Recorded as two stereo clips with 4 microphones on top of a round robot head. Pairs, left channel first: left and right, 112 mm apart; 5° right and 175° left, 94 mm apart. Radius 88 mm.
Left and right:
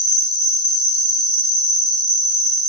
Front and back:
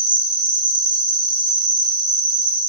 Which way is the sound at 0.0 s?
140° left.